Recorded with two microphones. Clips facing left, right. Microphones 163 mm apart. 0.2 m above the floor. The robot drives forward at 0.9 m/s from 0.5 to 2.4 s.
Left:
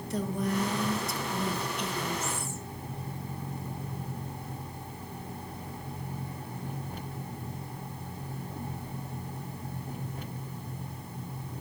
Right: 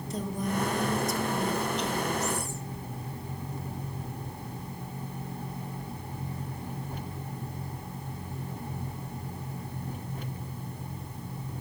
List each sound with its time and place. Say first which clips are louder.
0.1 s a woman speaking: left 1 dB; 65° left (ahead or behind), 2.5 m; by 2.6 s 45° left (ahead or behind), 3 m